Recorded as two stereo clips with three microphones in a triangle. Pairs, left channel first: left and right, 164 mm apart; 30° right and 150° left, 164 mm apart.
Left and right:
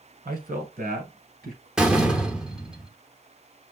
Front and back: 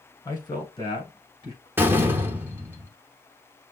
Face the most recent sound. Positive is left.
turn(degrees=-165)